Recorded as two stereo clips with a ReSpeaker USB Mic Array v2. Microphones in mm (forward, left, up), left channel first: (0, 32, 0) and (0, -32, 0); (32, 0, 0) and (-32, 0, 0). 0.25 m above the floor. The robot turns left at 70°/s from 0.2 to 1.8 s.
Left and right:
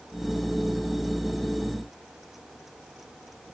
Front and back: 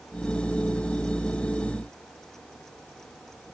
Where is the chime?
No chime in this recording.